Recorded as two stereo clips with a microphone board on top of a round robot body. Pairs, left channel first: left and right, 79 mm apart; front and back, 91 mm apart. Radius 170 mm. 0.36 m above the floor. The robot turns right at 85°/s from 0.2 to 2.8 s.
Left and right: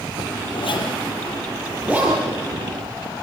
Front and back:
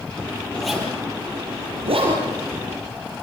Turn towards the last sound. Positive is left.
turn(degrees=-90)